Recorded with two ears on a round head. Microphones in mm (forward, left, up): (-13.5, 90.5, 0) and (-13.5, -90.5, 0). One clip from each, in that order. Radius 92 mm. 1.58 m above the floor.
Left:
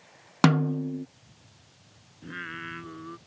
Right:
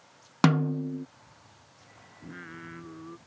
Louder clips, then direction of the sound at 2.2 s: Left 7 dB; 55° left (ahead or behind).